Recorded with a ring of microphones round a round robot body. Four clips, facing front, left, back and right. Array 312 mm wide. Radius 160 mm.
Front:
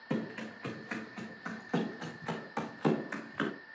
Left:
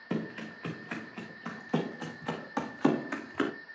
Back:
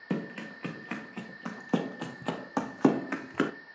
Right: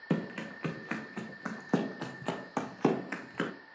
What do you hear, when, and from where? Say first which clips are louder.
0.1 s running footsteps: right 1 dB, back 2 dB; 120° right, 2.5 m; by 3.5 s straight behind, 1.6 m